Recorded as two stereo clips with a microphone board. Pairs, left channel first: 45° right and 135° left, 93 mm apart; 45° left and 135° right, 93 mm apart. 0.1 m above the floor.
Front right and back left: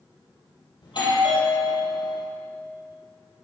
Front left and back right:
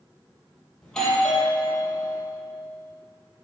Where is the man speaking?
I don't hear a man speaking.